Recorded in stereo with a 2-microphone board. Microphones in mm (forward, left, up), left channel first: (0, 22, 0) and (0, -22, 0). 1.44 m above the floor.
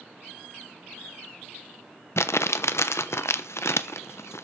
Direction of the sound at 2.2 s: 90° left.